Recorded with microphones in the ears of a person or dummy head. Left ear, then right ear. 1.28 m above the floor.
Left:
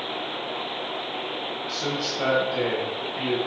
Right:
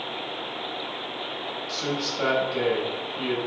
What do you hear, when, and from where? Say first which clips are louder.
1.7 s a man speaking: even; 15° right (ahead or behind), 6.5 m